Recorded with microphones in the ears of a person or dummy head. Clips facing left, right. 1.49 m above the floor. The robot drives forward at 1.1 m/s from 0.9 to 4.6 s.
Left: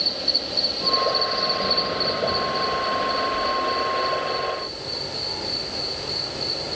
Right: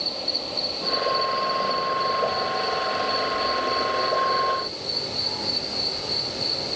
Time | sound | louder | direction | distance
0.0 | an insect | left 1 dB | 15° left (ahead or behind) | 1.5 m